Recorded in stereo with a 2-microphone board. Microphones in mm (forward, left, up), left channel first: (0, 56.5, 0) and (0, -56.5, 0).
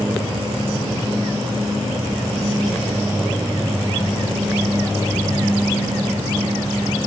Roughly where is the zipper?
No zipper in this recording.